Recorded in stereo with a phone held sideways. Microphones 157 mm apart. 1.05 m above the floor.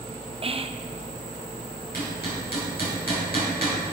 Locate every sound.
0.4 s whispering: 40° right (ahead or behind), 0.6 m
1.9 s hammering: 90° left, 5 m